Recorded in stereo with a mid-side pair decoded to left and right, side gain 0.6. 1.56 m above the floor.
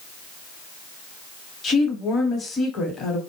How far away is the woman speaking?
About 1.1 m.